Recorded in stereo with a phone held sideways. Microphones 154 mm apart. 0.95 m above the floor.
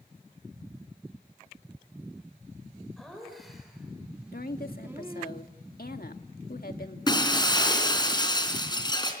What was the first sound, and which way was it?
Laughter, centre (ahead or behind).